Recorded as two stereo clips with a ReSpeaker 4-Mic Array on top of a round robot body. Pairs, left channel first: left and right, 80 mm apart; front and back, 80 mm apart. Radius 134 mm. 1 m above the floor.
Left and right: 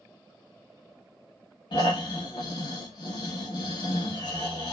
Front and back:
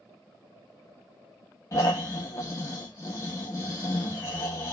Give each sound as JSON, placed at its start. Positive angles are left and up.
{"t": 1.7, "sound": "snoring", "azimuth_deg": 55, "distance_m": 0.8}